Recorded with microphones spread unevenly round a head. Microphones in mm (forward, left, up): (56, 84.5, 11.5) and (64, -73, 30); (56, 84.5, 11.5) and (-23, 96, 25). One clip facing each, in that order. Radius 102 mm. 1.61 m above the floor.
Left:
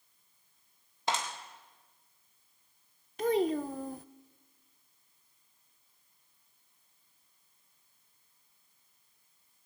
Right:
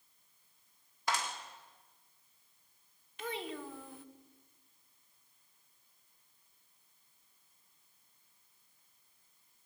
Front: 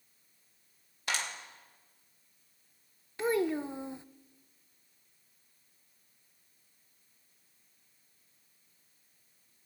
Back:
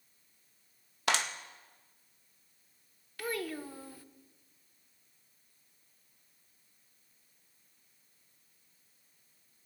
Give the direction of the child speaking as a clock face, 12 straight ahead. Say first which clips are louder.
Left 13 dB, front 8 dB; 10 o'clock.